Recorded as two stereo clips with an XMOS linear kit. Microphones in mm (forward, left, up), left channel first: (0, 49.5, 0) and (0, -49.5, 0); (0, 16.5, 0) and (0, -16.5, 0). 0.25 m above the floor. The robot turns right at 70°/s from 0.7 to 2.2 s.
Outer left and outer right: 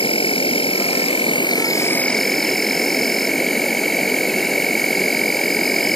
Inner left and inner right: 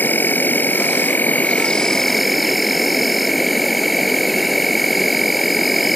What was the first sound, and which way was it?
An insect, 70° left.